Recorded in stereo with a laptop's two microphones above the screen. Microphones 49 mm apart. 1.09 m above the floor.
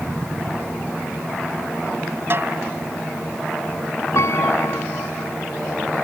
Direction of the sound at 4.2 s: 65° left (ahead or behind).